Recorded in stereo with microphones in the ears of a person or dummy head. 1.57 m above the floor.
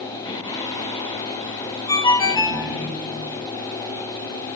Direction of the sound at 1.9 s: 25° left (ahead or behind).